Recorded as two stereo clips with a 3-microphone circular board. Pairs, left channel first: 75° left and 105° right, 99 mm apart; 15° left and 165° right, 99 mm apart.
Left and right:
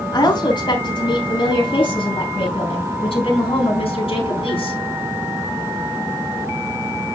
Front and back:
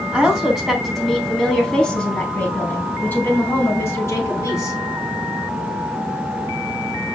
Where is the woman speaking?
110° left, 4 m; by 4.8 s 70° left, 4 m.